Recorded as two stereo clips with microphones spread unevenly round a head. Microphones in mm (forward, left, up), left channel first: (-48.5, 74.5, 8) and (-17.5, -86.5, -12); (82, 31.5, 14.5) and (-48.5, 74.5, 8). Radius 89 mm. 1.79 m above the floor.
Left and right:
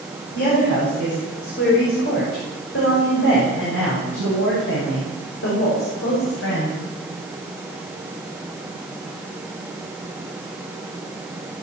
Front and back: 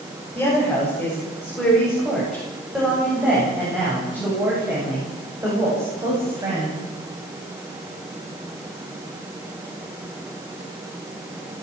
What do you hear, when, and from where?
0.3 s a woman speaking: 60° left, 10 m; by 6.8 s 95° left, 10.5 m